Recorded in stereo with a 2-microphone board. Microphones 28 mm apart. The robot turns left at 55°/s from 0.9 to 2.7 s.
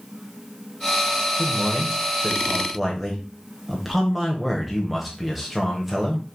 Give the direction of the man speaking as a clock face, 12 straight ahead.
3 o'clock.